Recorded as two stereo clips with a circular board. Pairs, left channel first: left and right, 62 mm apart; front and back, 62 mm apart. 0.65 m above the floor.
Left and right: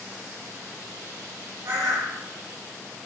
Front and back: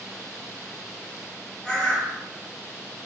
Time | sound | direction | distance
1.6 | a bird | 75° right | 0.7 m